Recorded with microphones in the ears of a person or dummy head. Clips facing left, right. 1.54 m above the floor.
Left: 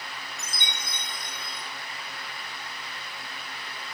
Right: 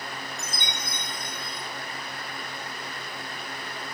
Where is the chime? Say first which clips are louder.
Right 4 dB; 45° right (ahead or behind), 4 m.